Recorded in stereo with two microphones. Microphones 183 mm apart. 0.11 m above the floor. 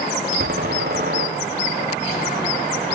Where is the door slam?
65° right (ahead or behind), 5 m.